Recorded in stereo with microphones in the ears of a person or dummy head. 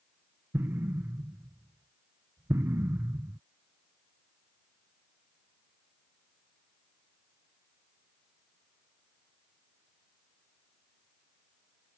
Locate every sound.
0.5 s an explosion: 10° right (ahead or behind)